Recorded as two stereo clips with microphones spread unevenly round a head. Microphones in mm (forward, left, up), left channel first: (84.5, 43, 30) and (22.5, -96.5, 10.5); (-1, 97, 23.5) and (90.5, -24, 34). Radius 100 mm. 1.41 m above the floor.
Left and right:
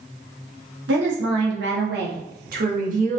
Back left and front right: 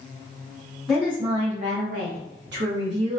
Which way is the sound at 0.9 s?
140° right.